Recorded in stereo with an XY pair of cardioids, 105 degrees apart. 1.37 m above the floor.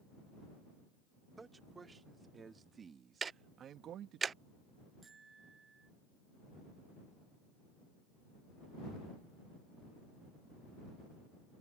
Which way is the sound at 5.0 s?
30° right.